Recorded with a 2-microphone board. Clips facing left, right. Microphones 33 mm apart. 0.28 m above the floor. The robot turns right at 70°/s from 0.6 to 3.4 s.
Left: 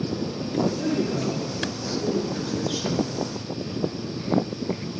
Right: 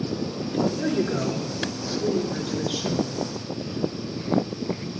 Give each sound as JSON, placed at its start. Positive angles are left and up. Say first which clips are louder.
{"t": 0.8, "sound": "a woman speaking", "louder": "right 1 dB", "azimuth_deg": -145, "distance_m": 3.5}